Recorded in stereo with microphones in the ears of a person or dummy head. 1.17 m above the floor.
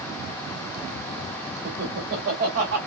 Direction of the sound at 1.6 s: 55° right (ahead or behind).